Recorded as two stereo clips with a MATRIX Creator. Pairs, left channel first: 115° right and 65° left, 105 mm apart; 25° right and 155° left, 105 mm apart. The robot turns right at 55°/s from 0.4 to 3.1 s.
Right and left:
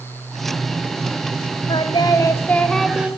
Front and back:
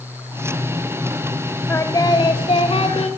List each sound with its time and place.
1.7 s singing: 85° right, 1.8 m; by 3.1 s 10° right, 1.8 m